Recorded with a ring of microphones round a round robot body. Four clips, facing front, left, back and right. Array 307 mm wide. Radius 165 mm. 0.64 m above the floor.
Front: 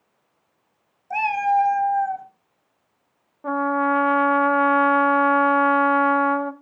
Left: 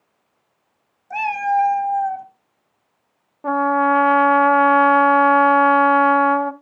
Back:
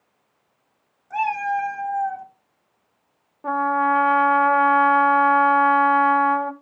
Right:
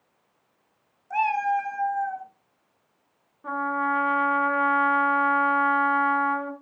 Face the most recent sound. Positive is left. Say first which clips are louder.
# left 9 dB, back 1 dB
turn(degrees=90)